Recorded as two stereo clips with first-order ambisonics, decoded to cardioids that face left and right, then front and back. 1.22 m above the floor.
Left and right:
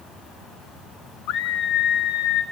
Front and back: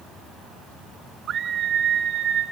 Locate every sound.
1.3 s a scream: 120° left, 1.0 m